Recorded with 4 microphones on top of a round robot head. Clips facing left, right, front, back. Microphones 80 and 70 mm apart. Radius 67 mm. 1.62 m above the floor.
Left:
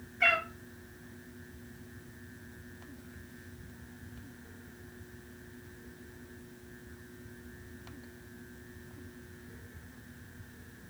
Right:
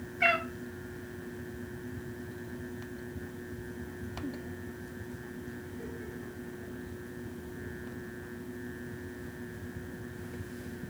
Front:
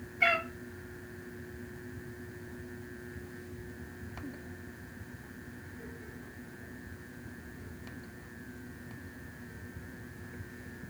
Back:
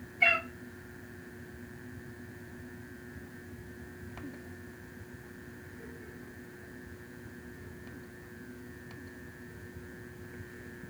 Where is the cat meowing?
10° right, 1.2 m.